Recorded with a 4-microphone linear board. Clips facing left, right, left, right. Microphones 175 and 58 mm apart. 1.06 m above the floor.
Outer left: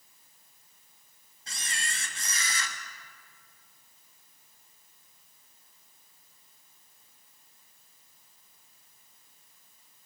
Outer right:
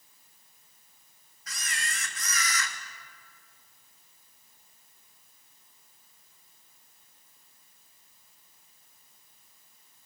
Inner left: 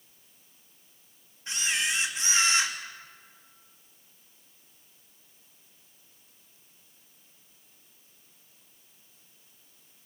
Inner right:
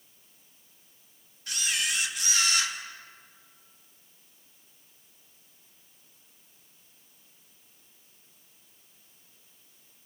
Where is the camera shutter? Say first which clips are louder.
Outer right 1 dB, inner left 2 dB; 30° left (ahead or behind), 1.6 m.